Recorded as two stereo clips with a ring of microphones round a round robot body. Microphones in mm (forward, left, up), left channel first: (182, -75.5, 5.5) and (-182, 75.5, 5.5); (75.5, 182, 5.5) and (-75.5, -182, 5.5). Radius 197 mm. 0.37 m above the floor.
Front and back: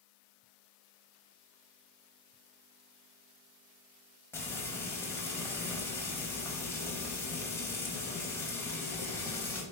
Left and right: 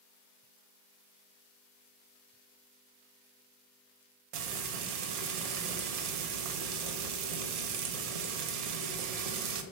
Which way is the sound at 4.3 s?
105° right.